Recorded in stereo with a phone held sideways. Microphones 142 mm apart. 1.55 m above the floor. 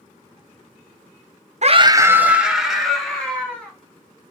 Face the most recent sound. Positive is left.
turn(degrees=5)  # may be behind; listen again after turning